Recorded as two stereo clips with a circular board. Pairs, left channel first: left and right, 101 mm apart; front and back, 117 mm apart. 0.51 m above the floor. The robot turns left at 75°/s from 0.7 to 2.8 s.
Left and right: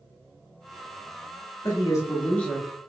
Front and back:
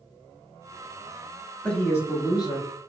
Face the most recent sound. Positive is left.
turn(degrees=-10)